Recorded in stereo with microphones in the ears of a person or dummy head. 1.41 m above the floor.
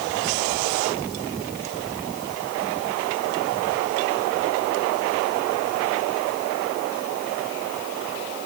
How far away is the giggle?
No giggle in this recording.